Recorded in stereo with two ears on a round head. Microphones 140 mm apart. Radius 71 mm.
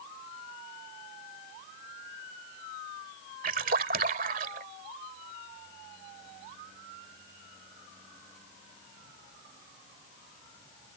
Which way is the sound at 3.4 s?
60° right (ahead or behind).